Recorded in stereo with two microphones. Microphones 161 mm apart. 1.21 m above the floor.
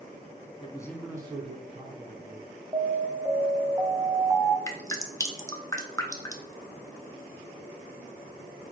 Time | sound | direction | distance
0.6 | a man speaking | 35° left (ahead or behind) | 0.6 m
2.7 | an alarm | 20° right (ahead or behind) | 0.7 m
4.7 | dripping | 20° left (ahead or behind) | 0.6 m